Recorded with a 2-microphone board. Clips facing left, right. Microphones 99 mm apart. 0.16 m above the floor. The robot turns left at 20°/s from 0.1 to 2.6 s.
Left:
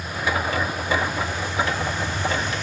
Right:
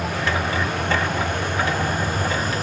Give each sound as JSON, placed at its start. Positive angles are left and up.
{"t": 0.0, "sound": "a vehicle", "side_deg": -75}